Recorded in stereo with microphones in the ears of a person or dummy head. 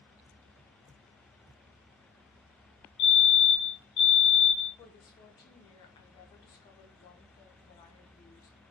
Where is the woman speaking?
30° left (ahead or behind), 0.7 m.